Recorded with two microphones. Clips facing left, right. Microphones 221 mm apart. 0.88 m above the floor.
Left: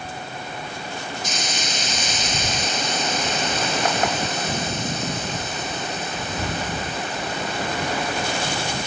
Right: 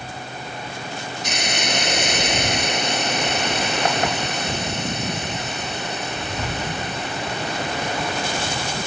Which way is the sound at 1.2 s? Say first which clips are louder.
Right 3 dB; 65° right (ahead or behind).